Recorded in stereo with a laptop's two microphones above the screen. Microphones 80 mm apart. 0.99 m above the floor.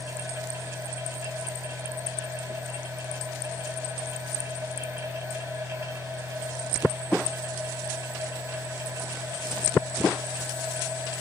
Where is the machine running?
30° right (ahead or behind), 2 m.